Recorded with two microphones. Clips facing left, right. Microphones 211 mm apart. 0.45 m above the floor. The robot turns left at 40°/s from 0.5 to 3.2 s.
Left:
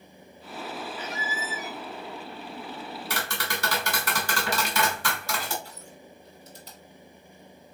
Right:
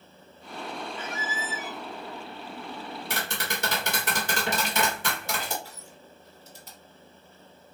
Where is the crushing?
50° right (ahead or behind), 2.0 m.